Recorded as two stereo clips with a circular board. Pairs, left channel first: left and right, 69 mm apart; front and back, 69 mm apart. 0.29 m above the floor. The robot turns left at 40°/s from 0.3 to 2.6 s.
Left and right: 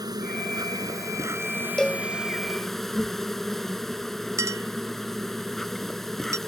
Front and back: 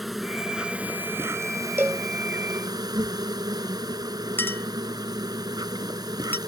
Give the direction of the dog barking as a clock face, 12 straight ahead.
No dog barking in this recording.